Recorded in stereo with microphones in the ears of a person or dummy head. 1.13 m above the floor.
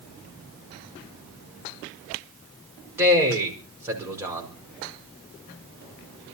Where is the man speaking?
10° right (ahead or behind), 5 m.